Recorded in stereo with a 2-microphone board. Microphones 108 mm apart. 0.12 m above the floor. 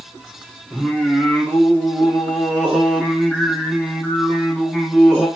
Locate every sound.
0.7 s singing: 5° left (ahead or behind), 1.4 m